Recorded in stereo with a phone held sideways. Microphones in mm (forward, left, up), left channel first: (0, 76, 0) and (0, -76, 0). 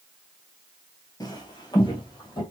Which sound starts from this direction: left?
Footsteps, at 1.2 s.